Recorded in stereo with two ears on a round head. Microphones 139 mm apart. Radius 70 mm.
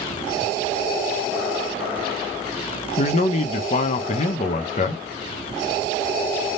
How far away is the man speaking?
About 0.6 m.